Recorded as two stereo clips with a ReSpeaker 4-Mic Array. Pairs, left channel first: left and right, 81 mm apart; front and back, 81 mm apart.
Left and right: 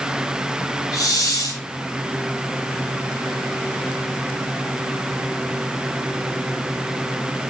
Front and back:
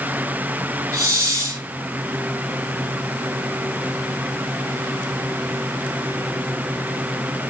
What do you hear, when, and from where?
0.9 s a hiss: 130° left, 2.5 m